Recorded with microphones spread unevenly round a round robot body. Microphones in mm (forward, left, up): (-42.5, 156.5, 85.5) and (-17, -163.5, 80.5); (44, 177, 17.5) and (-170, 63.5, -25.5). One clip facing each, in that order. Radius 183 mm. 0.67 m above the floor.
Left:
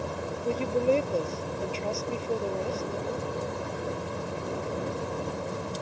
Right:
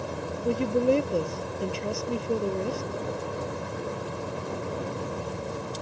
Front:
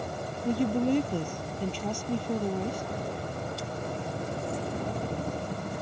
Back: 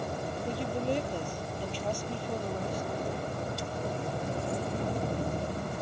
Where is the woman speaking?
10° right.